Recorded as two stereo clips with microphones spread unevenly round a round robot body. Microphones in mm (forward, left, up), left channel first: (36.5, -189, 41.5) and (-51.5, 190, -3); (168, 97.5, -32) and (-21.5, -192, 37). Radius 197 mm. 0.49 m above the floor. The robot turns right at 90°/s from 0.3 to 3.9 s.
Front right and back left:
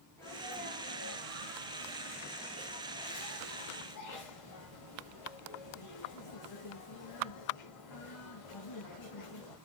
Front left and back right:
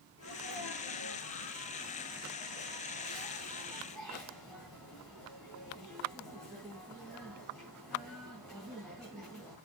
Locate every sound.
0.2 s a sneeze: 5° left, 3.5 m; by 9.6 s 30° right, 3.5 m